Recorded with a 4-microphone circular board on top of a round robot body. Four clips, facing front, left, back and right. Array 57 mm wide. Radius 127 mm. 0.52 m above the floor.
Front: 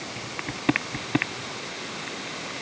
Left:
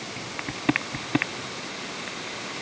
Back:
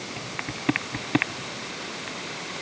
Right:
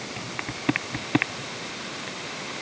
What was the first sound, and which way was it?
Only background noise.